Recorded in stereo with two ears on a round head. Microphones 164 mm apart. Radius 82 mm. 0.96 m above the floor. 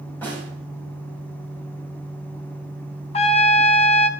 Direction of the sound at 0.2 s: 10° left (ahead or behind).